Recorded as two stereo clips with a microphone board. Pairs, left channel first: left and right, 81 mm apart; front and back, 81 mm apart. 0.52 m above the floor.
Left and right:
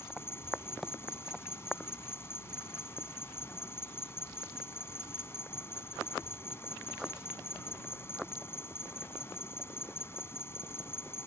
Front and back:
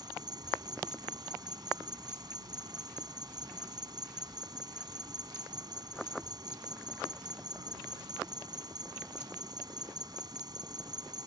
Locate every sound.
0.0 s an insect: 150° left